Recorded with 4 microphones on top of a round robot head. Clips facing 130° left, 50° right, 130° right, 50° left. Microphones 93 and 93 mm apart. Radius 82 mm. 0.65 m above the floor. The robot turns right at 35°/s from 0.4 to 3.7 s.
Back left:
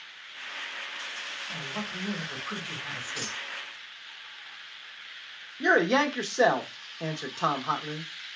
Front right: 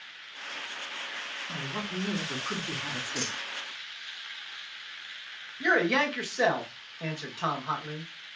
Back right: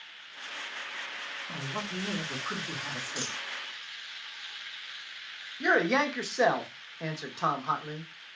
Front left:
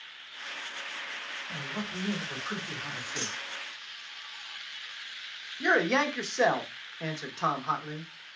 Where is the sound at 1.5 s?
105° right, 2 m; by 3.4 s 40° right, 2 m.